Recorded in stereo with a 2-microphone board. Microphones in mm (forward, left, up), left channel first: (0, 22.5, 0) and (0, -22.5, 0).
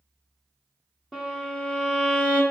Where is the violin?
5° left (ahead or behind), 1.5 m.